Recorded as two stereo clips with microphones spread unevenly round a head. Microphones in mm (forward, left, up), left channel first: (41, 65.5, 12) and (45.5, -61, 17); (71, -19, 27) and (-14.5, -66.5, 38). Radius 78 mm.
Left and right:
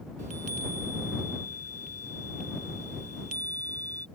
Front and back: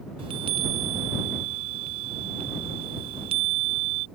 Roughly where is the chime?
Behind right.